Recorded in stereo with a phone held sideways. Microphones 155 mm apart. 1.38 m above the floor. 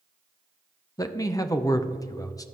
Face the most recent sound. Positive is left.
turn(degrees=20)  # may be behind; listen again after turning